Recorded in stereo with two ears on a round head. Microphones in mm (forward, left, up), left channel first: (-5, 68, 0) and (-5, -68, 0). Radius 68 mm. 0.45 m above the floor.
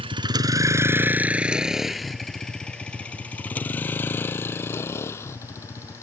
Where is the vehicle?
35° right (ahead or behind); by 6.0 s 20° left (ahead or behind).